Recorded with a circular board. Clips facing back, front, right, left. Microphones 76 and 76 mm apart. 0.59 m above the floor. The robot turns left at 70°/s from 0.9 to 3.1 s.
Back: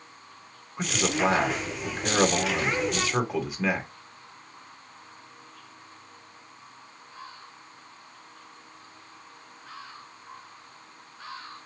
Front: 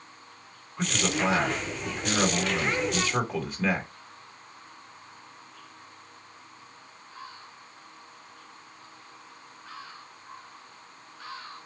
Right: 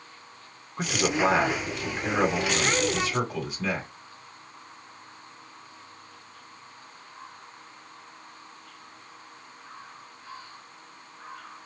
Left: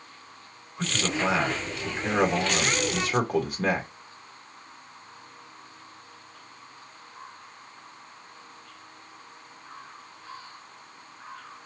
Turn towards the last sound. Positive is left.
turn(degrees=100)